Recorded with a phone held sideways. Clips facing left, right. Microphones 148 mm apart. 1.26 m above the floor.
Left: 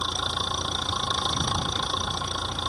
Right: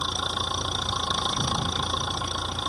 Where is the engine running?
Centre (ahead or behind).